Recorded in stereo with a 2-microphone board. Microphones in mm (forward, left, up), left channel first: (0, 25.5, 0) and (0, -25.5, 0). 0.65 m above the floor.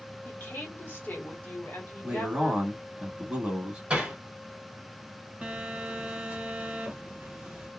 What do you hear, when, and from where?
0.2 s a woman speaking: 40° left (ahead or behind), 1.7 m
2.0 s a man speaking: 20° right (ahead or behind), 1.2 m
3.9 s hammering: 20° right (ahead or behind), 1.6 m
5.4 s a phone buzzing: 20° right (ahead or behind), 1.3 m